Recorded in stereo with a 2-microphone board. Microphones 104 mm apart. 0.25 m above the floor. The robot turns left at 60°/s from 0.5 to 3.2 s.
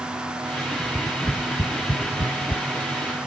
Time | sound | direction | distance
0.8 | tapping | 5° right (ahead or behind) | ?